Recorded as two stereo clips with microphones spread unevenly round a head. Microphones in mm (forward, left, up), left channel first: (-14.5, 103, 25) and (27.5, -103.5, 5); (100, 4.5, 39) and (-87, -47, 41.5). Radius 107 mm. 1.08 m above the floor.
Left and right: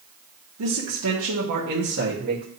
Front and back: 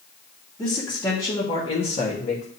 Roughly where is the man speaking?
Right.